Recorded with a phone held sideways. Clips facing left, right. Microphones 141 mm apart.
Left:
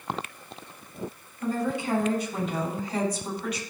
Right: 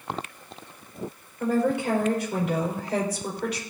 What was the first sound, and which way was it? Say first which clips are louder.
A woman speaking: right 5 dB; 80° right.